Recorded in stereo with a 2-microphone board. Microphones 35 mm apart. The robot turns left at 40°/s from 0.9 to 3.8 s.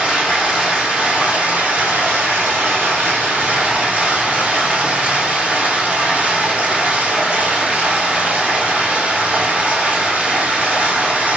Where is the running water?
25° right, 1.9 m; by 11.4 s 140° right, 1.9 m.